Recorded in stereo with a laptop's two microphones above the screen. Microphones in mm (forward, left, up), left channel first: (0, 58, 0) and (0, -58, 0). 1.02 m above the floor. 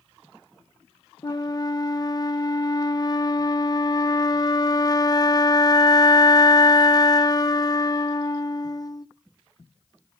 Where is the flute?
35° left (ahead or behind), 0.8 m.